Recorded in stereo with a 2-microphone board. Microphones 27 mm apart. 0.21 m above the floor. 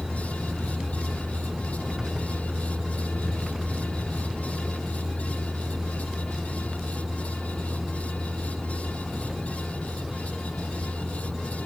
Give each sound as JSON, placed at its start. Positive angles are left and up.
{"t": 0.0, "sound": "a vehicle", "side_deg": -20}